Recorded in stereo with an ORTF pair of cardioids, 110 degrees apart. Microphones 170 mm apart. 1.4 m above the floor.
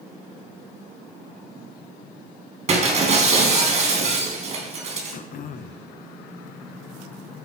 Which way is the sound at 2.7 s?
40° right.